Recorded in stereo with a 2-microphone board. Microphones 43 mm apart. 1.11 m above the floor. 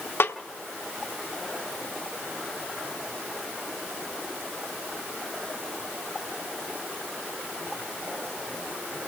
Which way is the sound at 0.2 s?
65° left (ahead or behind).